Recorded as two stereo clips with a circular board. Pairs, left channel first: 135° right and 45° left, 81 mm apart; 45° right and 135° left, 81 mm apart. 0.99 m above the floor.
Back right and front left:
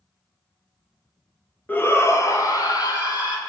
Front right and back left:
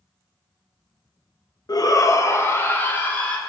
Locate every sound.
1.7 s a shout: 65° right, 0.9 m; by 3.4 s 115° right, 2 m